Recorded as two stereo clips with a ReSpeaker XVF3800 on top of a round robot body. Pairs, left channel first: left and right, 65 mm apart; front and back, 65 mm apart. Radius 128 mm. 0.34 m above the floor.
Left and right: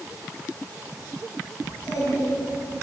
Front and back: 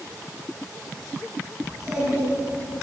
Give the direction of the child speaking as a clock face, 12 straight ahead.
8 o'clock.